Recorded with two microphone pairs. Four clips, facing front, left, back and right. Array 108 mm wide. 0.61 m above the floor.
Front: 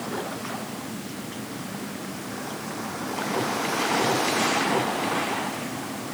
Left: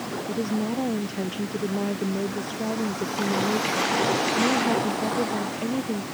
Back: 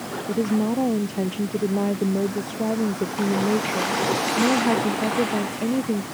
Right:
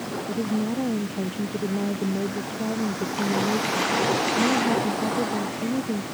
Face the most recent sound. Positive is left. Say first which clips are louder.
# right 1 dB, back 11 dB
turn(degrees=165)